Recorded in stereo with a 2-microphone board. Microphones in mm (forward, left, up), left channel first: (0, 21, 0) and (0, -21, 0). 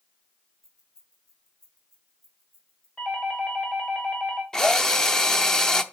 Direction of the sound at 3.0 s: 30° left (ahead or behind).